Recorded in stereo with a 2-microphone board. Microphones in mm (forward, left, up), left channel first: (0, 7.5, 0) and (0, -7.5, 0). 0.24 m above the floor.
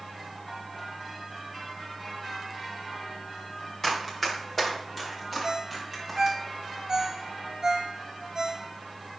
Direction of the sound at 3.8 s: 25° left (ahead or behind).